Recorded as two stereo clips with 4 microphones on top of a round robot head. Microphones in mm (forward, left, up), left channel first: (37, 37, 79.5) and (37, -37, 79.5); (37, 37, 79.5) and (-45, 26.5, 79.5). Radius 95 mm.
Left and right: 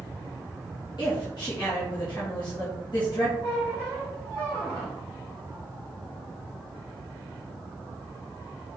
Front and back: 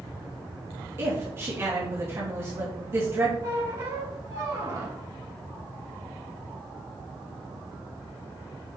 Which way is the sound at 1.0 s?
125° left.